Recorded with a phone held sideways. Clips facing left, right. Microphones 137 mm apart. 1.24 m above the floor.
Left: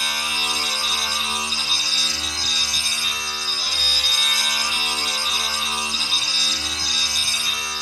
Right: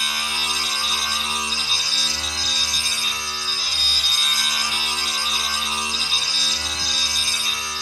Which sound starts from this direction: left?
A machine running, at 0.0 s.